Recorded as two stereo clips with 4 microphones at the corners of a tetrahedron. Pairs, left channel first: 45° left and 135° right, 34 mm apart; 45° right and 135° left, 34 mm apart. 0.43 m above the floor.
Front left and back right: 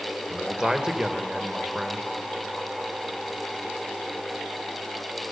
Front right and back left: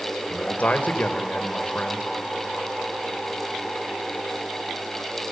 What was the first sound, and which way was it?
A man speaking, 75° right.